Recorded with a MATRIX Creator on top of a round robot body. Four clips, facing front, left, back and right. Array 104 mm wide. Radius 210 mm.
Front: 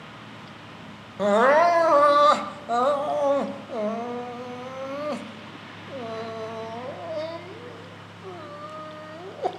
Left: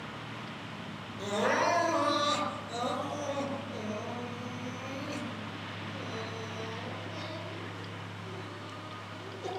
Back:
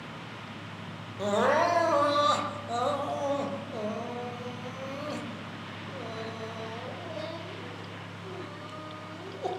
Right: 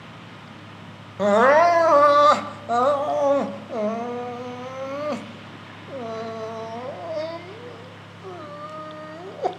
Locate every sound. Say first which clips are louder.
1.2 s crying: right 14 dB, front 7 dB; 60° right, 1.5 m